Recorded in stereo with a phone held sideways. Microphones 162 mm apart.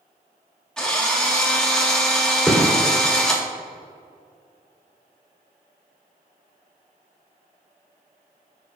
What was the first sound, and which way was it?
A drill, 5° left (ahead or behind).